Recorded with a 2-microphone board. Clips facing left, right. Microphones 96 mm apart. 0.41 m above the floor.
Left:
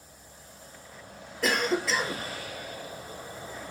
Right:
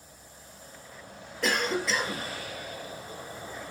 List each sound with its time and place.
1.4 s a cough: centre (ahead or behind), 1.0 m